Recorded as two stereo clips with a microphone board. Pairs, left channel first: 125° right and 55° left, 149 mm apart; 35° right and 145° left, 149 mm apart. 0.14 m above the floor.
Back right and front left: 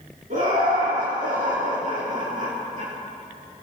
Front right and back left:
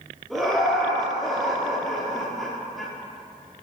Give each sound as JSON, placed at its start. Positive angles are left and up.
{"t": 0.3, "sound": "laughter", "azimuth_deg": 55, "distance_m": 4.0}